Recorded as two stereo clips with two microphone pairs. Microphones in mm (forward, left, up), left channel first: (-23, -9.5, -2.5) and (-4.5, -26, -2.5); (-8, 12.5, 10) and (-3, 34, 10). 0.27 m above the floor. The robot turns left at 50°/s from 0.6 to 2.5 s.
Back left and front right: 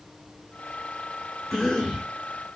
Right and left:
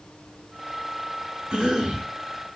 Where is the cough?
55° left, 1.9 m; by 2.1 s 25° left, 1.9 m.